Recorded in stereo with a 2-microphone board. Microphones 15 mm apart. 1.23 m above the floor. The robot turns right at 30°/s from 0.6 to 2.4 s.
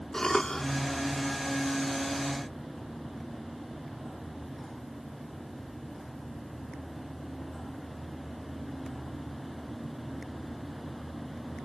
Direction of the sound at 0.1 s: 30° left (ahead or behind).